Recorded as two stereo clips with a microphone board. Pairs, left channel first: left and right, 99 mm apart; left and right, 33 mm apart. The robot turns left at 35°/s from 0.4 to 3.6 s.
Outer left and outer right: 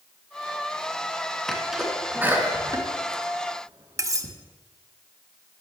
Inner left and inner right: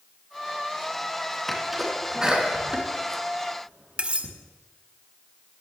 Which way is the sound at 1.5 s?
5° left (ahead or behind).